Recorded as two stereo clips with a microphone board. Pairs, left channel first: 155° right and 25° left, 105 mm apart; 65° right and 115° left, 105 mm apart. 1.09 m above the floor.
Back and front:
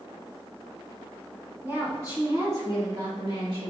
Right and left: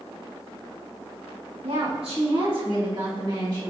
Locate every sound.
1.6 s a woman speaking: 90° left, 1.9 m; by 3.7 s 60° left, 1.9 m